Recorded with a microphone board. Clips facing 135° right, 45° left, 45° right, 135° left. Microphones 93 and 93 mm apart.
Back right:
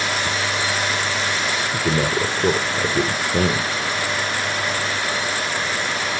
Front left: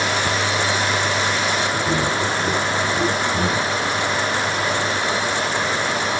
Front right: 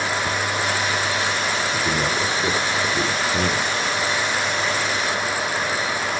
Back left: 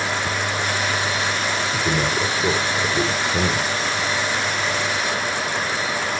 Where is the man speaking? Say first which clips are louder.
Even, back left 1 dB; 140° right, 3 m.